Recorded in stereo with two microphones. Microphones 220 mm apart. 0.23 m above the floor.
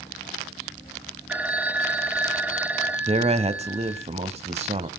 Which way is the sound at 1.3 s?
5° right (ahead or behind).